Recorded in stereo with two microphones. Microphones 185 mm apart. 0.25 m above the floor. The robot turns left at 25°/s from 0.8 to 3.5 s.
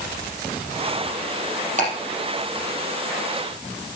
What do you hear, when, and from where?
1.8 s ticking: 40° right (ahead or behind), 4.5 m; by 1.9 s 45° right (ahead or behind), 4.5 m